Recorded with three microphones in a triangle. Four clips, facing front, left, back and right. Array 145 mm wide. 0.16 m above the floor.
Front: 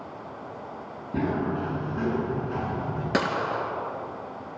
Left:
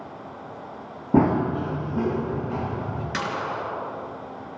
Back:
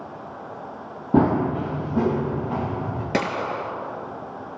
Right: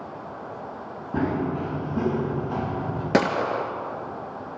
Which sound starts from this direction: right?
A gunshot, at 3.1 s.